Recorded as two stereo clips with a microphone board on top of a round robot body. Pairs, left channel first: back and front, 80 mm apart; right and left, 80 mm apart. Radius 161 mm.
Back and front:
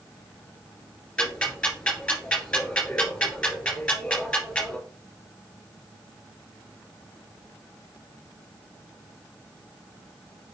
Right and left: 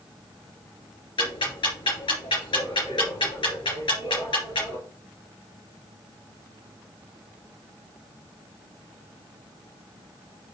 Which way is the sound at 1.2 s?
100° right.